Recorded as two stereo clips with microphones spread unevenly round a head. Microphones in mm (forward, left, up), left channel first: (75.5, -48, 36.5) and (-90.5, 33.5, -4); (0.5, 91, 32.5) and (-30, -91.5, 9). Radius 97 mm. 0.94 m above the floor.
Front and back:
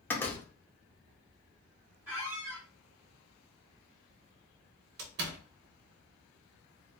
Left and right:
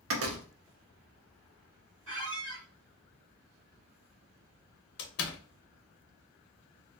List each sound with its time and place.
0.1 s a door slam: 110° right, 0.8 m
2.1 s a squeak: 120° right, 1.5 m
5.0 s a door slam: 115° left, 0.9 m